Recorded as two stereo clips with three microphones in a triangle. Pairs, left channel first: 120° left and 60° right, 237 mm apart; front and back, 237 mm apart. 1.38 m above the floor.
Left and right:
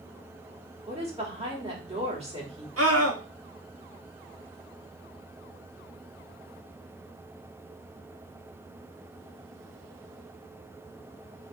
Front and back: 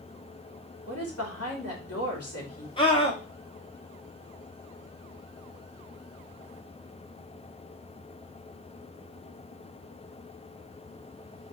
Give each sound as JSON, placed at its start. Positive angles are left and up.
{"t": 0.9, "sound": "a woman speaking", "azimuth_deg": 5, "distance_m": 3.0}
{"t": 2.8, "sound": "a scream", "azimuth_deg": -70, "distance_m": 2.0}